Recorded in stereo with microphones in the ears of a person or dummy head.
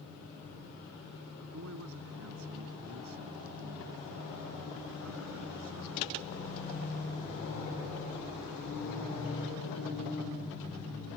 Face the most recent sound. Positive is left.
turn(degrees=-70)  # may be behind; listen again after turning